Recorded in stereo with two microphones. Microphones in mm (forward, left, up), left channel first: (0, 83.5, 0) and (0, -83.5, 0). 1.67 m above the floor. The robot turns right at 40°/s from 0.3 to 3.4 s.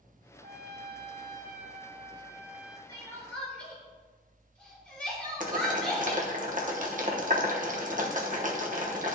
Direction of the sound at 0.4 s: 100° right.